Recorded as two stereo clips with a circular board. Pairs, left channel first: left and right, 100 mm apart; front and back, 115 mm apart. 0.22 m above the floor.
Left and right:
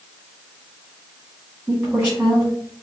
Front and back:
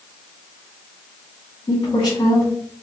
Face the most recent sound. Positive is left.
turn(degrees=-20)